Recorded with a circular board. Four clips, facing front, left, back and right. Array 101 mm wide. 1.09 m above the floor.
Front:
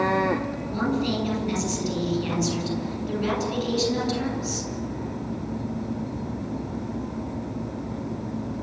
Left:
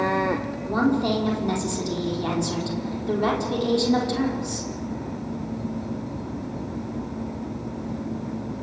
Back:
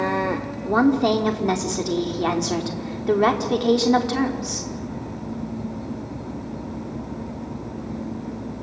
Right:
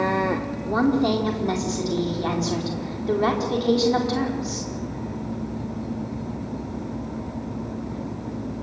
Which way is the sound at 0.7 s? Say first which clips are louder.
Right 2 dB, back 9 dB; 170° right.